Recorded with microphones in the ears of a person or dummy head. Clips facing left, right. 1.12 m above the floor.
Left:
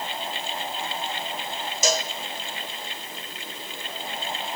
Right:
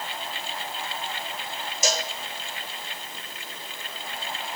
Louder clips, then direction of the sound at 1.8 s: Left 3 dB; 65° left (ahead or behind).